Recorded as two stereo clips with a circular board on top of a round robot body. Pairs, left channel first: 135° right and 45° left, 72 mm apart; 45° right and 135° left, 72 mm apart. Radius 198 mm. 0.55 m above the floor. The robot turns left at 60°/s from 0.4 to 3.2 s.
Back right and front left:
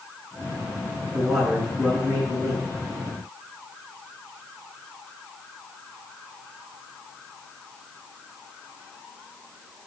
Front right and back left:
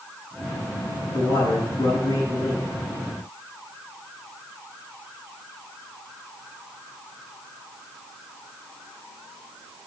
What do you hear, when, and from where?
1.1 s a man speaking: 25° right, 7.5 m; by 2.7 s 115° right, 7.5 m